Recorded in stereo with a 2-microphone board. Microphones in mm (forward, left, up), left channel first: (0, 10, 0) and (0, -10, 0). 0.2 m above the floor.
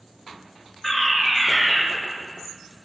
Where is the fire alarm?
25° left (ahead or behind), 4.5 m.